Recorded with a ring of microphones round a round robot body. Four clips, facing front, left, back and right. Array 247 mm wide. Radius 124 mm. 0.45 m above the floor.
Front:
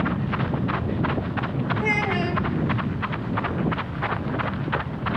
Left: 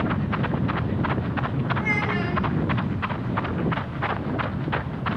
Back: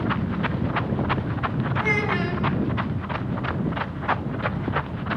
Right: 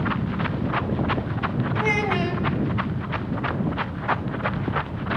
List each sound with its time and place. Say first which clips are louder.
1.8 s a child speaking: right 6 dB, back 1 dB; 50° right, 2.5 m